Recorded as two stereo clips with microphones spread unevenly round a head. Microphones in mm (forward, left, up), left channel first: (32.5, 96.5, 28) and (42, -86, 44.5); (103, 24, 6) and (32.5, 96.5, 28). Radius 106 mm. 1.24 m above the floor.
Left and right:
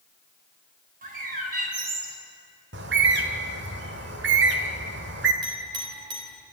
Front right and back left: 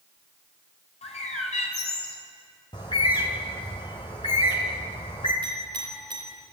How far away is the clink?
About 3.5 m.